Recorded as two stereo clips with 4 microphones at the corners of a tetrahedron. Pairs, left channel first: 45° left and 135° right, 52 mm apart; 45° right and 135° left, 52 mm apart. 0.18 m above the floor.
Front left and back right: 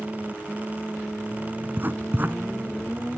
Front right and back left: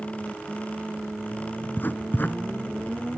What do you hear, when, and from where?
1.6 s writing: 90° right, 0.9 m